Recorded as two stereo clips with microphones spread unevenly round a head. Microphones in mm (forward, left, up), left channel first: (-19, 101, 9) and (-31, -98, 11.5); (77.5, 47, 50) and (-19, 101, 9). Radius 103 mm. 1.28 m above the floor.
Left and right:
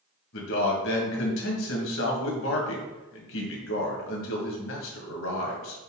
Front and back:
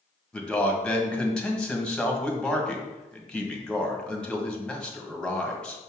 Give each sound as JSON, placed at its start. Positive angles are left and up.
{"t": 0.3, "sound": "a man speaking", "azimuth_deg": 60, "distance_m": 1.8}